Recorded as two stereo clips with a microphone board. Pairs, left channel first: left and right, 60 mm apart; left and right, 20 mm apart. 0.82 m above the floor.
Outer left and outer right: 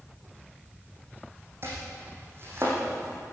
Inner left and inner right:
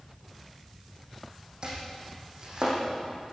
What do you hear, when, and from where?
1.6 s chopping: 45° right (ahead or behind), 7.5 m